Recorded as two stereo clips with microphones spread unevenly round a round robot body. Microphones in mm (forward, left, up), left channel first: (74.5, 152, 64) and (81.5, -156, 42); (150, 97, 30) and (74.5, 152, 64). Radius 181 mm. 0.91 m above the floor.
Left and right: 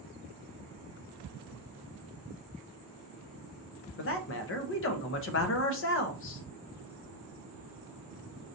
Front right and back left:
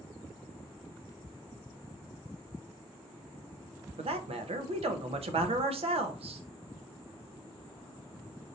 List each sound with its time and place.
4.0 s a man speaking: 135° left, 0.6 m